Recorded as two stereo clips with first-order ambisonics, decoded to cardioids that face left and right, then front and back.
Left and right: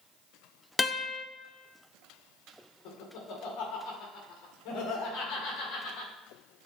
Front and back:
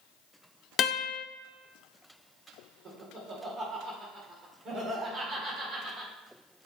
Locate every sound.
0.8 s a guitar: 20° left, 0.5 m
2.9 s laughter: 120° left, 2 m